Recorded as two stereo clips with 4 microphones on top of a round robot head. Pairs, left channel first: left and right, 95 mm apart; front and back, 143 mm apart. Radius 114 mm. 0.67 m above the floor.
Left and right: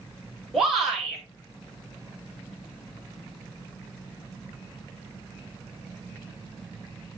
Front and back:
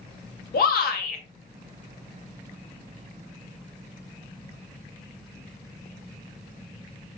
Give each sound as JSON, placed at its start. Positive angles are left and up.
{"t": 0.5, "sound": "a shout", "azimuth_deg": 0, "distance_m": 3.0}